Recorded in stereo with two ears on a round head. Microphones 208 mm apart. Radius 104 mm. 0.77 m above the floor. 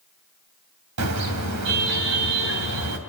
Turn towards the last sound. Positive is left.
turn(degrees=-80)